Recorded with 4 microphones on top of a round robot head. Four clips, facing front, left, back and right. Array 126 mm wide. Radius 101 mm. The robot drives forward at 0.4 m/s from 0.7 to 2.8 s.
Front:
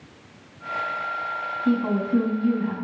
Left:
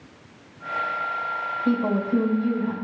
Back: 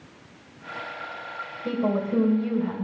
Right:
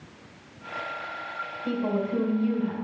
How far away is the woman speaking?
About 2 m.